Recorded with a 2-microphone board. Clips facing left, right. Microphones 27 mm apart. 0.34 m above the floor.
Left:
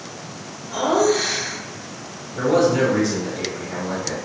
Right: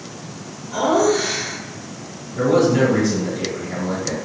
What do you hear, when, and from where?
0.7 s laughter: 25° left (ahead or behind), 1.0 m
2.4 s a man speaking: 15° left (ahead or behind), 1.5 m